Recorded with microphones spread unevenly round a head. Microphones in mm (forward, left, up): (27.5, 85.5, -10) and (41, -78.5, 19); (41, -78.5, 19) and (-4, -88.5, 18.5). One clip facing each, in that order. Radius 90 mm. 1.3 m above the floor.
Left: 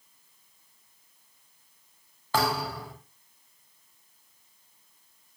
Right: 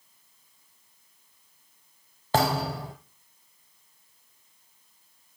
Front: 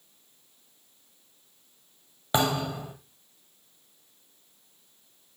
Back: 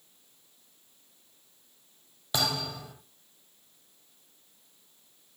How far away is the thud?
About 2 m.